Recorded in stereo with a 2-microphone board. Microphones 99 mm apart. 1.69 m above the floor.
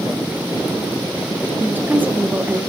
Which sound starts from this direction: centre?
A woman speaking, at 1.6 s.